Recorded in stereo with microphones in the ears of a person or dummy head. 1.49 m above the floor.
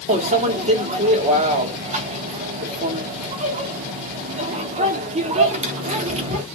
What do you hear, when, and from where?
0.1 s a microwave: 35° right (ahead or behind), 0.6 m